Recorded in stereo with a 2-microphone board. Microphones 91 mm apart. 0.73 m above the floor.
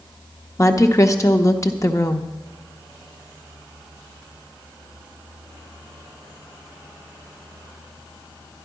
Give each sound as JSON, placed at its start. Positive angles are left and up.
{"t": 0.6, "sound": "a woman speaking", "side_deg": 35, "distance_m": 0.9}